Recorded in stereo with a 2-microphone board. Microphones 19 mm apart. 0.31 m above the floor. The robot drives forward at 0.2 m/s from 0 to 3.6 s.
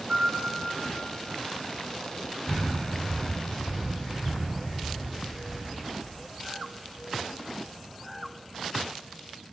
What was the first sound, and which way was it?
A piano, 60° right (ahead or behind).